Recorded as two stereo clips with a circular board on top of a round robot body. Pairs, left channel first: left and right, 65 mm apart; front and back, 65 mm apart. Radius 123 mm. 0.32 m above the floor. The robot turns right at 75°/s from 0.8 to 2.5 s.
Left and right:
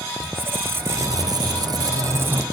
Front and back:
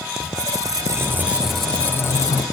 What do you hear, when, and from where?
0.2 s a squeak: 145° right, 1.2 m; by 2.5 s 20° right, 1.2 m